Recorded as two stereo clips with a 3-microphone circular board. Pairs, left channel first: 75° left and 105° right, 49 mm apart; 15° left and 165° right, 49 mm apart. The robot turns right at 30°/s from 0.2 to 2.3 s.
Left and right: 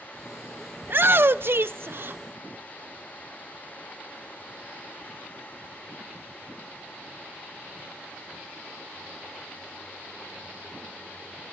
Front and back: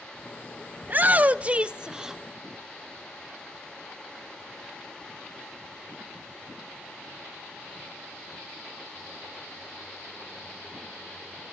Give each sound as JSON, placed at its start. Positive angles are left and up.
{"t": 0.8, "sound": "a shout", "azimuth_deg": -130, "distance_m": 0.6}